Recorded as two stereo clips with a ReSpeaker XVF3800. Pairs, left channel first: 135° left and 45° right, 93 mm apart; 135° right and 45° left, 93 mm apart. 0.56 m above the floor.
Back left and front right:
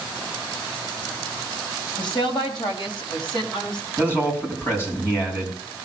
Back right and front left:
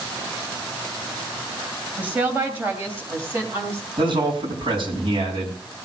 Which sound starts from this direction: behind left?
A woman speaking, at 2.0 s.